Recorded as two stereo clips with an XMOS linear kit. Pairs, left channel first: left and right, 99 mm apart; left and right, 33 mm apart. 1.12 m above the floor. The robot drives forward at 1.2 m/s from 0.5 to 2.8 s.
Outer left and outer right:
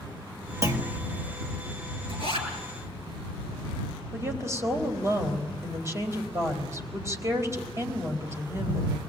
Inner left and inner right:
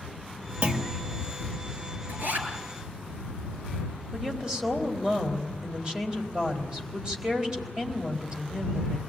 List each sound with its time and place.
0.6 s a clunk: 35° right (ahead or behind), 1.7 m; by 1.0 s 25° right (ahead or behind), 2 m
2.1 s a zipper: 65° right (ahead or behind), 6 m
4.1 s a woman speaking: 30° right (ahead or behind), 4.5 m